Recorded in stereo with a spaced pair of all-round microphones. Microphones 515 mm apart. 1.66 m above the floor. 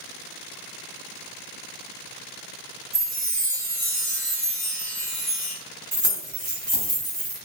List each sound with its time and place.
2.9 s a chime: 25° right (ahead or behind), 1.4 m
5.9 s keys jangling: 35° right (ahead or behind), 1.4 m